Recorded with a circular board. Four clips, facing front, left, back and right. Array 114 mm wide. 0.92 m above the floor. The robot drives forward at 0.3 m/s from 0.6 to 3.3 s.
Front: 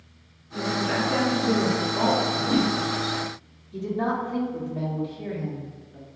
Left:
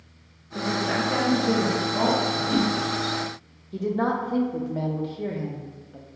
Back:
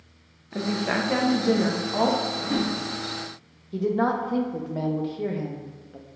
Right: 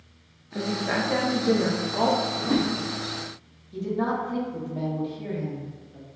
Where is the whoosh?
85° right, 0.8 m; by 2.8 s 95° right, 0.8 m.